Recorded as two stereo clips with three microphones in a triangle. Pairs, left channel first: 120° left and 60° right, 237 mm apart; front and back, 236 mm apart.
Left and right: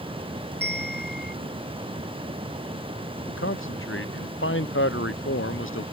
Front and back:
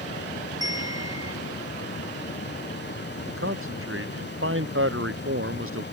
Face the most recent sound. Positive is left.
turn(degrees=150)